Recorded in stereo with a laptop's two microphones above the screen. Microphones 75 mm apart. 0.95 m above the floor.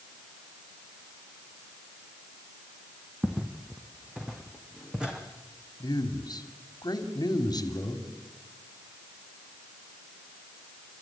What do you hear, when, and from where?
3.2 s footsteps: 15° right (ahead or behind), 2.5 m; by 5.2 s 10° right (ahead or behind), 3.5 m
5.8 s a man speaking: 65° left (ahead or behind), 3 m